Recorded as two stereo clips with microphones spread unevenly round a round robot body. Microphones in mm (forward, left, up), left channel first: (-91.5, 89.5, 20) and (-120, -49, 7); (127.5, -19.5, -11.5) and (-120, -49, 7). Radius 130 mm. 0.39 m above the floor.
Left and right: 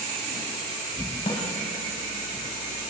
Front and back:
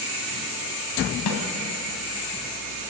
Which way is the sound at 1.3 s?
15° left.